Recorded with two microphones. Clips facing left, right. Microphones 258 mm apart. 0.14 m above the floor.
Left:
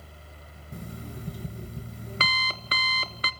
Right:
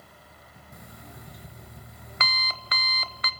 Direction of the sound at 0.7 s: 35° left (ahead or behind).